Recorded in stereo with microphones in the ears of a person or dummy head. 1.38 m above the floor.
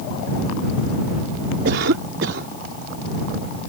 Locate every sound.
1.6 s a cough: 70° right (ahead or behind)